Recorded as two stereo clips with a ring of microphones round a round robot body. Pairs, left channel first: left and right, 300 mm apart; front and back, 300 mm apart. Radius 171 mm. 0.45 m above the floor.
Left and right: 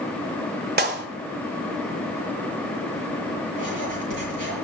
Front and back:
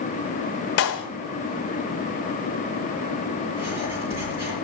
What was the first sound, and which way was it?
A clap, 35° right.